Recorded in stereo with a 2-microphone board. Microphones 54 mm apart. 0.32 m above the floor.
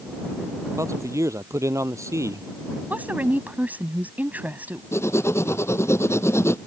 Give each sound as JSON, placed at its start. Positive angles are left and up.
{"t": 0.8, "sound": "a man speaking", "side_deg": -80}
{"t": 2.9, "sound": "a woman speaking", "side_deg": -35}
{"t": 4.9, "sound": "writing", "side_deg": 60}